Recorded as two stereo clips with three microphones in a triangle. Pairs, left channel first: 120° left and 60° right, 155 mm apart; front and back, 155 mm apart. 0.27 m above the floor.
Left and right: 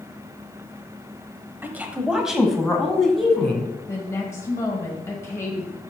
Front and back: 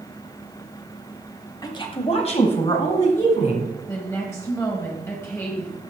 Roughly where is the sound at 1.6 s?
Ahead.